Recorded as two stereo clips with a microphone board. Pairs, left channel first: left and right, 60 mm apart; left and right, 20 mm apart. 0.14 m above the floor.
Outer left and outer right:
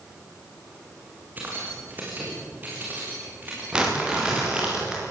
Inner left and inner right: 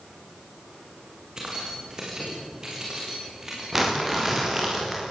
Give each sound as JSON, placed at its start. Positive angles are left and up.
{"t": 1.4, "sound": "keys jangling", "side_deg": -30, "distance_m": 6.5}
{"t": 3.7, "sound": "crumpling", "side_deg": -15, "distance_m": 7.0}